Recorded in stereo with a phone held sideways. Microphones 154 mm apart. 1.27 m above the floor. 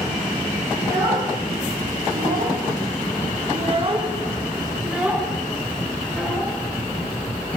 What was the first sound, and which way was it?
A child speaking, 50° right (ahead or behind).